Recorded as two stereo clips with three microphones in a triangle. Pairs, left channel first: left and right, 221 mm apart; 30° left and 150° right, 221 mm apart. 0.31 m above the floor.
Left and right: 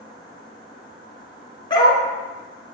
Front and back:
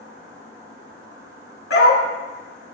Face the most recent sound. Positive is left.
turn(degrees=25)